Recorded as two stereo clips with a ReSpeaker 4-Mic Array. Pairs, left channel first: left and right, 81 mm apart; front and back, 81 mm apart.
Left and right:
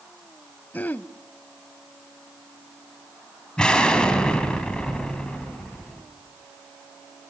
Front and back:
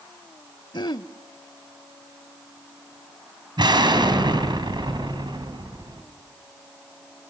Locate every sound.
0.7 s throat clearing: 25° left, 0.5 m
3.6 s an explosion: 170° left, 3.5 m